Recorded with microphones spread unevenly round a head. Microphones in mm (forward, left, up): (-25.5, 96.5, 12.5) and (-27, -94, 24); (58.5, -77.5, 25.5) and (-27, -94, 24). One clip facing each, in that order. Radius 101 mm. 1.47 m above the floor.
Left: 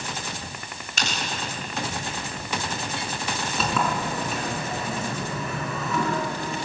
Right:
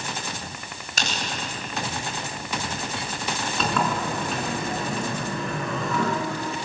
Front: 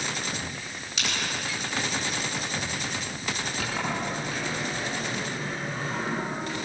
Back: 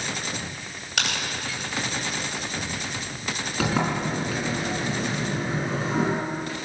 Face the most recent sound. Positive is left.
turn(degrees=175)